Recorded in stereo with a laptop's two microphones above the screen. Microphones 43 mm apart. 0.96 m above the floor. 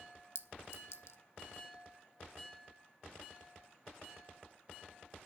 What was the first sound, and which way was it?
A clink, 75° left (ahead or behind).